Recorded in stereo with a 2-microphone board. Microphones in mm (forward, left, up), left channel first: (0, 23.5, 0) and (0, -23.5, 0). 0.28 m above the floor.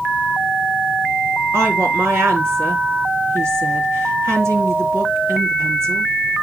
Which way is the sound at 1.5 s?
70° right (ahead or behind).